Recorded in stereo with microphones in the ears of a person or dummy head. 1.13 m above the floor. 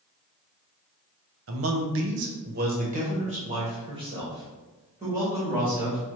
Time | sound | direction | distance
1.5 | a man speaking | 65° right (ahead or behind) | 0.8 m